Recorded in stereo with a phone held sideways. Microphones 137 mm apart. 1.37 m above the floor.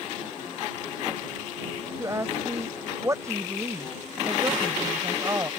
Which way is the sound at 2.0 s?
20° right (ahead or behind).